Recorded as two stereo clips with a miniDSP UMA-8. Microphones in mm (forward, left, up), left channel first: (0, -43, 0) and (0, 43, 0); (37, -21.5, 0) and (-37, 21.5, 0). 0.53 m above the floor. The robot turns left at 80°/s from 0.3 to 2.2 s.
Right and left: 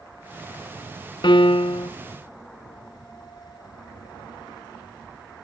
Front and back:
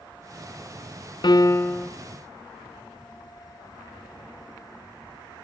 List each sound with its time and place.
1.2 s a piano: 60° right, 0.5 m; by 1.9 s 115° right, 0.5 m